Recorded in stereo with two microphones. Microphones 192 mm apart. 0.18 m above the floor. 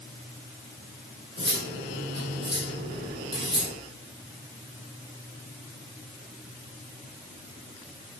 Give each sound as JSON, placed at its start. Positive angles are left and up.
{"t": 1.4, "sound": "cutlery clinking", "side_deg": -75, "distance_m": 4.5}